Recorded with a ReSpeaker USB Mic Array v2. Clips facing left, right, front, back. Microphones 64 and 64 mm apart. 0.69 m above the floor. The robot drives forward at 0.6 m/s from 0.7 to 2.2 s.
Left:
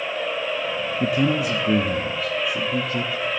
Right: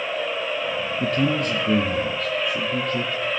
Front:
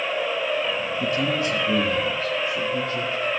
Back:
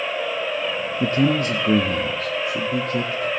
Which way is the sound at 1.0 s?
160° left.